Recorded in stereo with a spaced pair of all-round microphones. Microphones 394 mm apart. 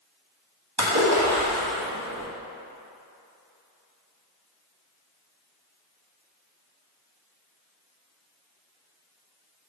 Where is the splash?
80° right, 1.9 m.